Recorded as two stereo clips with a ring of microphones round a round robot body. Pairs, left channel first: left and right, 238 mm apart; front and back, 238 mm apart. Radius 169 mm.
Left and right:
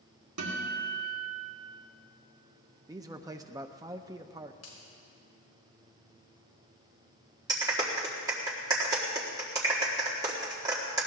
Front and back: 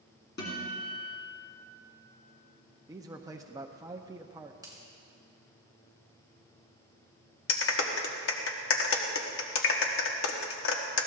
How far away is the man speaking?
About 0.5 m.